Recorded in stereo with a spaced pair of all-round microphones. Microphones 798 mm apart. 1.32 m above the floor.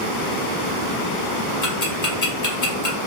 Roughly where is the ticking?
Left.